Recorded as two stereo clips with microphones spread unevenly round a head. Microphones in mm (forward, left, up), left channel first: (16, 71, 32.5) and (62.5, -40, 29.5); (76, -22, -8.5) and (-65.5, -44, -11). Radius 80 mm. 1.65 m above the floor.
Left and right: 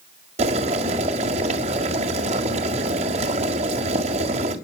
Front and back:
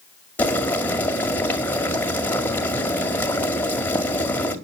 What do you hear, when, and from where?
0.4 s boiling: 65° right, 1.9 m